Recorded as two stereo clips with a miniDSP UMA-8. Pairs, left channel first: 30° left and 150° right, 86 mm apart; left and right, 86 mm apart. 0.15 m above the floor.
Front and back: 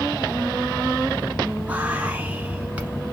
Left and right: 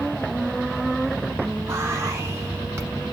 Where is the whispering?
95° right, 1.2 m.